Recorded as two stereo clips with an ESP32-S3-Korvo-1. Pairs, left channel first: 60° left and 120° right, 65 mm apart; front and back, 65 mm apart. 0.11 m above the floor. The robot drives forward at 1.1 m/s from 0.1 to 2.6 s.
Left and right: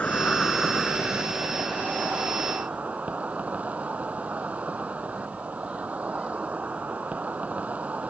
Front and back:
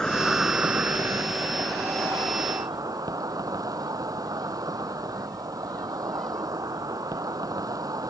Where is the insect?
55° left; by 8.1 s 175° left.